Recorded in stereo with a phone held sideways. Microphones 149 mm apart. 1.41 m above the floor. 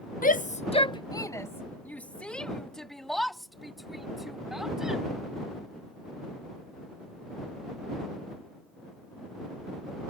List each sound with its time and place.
0.2 s a shout: 65° left (ahead or behind); by 5.0 s 5° right (ahead or behind)